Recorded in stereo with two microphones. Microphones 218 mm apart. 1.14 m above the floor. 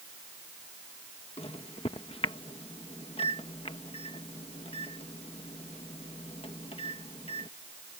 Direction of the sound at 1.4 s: 25° left (ahead or behind).